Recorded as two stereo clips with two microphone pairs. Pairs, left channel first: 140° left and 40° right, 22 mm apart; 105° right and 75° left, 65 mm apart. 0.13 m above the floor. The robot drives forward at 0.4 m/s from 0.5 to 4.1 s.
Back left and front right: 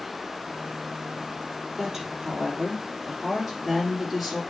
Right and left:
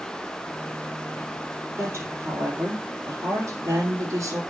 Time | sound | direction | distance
1.8 | a woman speaking | 30° left | 3 m